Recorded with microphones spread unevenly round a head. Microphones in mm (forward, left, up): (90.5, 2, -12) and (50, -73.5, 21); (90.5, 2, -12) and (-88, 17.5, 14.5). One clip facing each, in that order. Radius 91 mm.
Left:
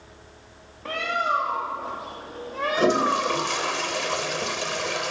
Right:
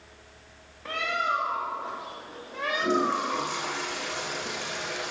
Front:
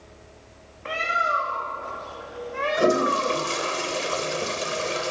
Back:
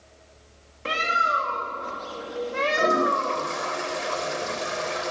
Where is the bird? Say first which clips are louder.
Left 3 dB, even; 135° left, 2.5 m.